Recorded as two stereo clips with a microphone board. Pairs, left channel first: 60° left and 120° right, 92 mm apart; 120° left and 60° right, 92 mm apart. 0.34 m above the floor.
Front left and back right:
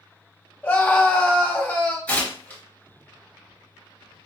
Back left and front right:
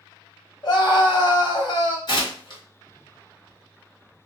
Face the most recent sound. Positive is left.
turn(degrees=130)